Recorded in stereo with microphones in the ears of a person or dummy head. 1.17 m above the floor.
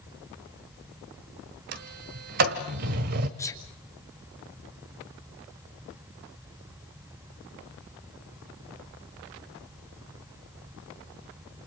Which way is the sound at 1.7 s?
45° right (ahead or behind).